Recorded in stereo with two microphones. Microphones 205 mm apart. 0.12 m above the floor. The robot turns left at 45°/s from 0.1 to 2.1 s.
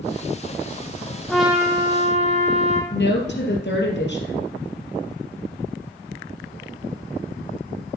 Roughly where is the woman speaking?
Left.